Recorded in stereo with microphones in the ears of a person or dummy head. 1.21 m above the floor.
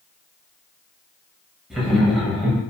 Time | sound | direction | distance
1.7 | laughter | centre (ahead or behind) | 0.7 m